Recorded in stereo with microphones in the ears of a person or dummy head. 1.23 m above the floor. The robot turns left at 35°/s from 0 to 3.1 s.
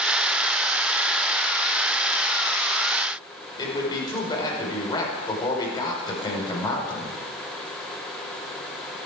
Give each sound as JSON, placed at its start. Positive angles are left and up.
{"t": 3.6, "sound": "a man speaking", "side_deg": 20, "distance_m": 5.5}